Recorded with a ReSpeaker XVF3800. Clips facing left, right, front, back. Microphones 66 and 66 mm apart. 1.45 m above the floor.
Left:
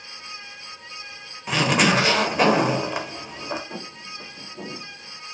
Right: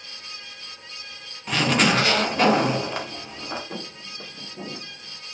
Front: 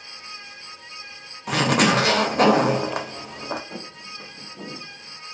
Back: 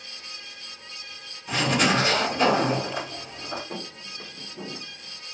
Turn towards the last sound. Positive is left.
turn(degrees=-90)